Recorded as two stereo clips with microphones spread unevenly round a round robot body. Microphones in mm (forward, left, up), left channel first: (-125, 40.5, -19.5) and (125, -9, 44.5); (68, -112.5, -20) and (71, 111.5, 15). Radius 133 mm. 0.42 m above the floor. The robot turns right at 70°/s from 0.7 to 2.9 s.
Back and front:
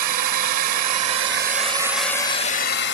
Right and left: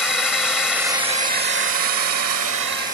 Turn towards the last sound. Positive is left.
turn(degrees=150)